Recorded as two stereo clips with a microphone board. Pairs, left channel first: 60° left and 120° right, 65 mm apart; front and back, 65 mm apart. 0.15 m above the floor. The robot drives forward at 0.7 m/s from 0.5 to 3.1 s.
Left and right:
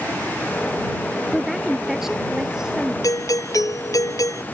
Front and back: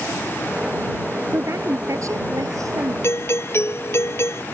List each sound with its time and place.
1.3 s a woman speaking: 150° left; by 2.9 s 160° left
3.0 s a doorbell: 40° left